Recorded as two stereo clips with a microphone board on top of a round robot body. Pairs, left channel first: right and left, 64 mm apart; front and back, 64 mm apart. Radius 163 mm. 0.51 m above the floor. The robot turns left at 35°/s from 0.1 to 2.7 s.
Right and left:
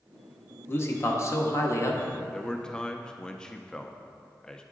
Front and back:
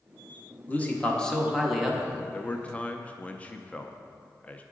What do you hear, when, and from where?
0.7 s a man speaking: 55° right, 1.2 m; by 2.1 s 105° right, 1.2 m
2.3 s a man speaking: 20° right, 0.6 m; by 4.6 s 30° right, 0.6 m